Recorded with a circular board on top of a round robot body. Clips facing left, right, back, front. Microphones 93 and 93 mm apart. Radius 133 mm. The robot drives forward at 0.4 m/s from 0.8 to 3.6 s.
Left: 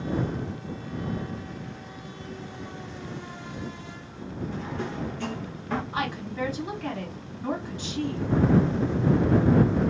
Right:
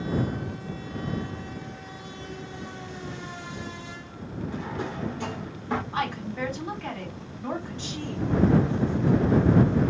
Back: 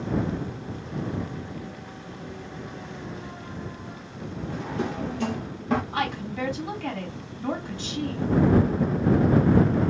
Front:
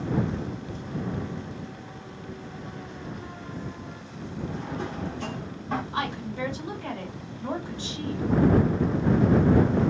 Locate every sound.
4.5 s a drawer: 165° right, 0.5 m
5.9 s a woman speaking: straight behind, 2 m